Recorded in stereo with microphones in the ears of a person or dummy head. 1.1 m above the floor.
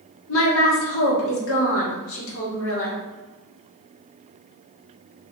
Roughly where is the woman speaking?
Left.